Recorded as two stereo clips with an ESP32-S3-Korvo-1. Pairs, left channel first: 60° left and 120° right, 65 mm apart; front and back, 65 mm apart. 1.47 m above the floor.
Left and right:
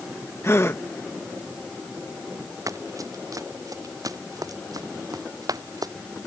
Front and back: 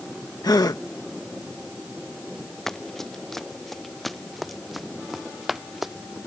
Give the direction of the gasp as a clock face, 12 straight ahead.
12 o'clock.